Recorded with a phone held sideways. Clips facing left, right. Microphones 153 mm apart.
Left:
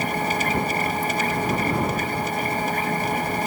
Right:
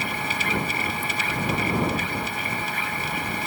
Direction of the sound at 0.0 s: 45° left (ahead or behind).